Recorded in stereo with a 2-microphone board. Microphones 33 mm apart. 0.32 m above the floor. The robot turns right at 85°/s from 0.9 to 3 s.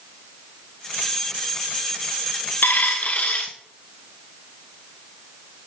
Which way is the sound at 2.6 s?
105° left.